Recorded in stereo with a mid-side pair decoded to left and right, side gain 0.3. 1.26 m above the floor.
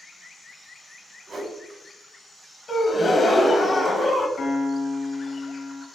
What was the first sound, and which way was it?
A whoosh, 70° right.